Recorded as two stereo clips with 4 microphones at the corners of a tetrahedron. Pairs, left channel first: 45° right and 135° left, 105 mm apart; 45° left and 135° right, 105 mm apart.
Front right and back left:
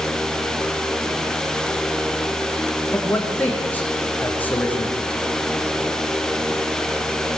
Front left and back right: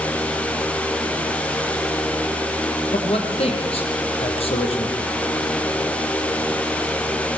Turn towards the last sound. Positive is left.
turn(degrees=30)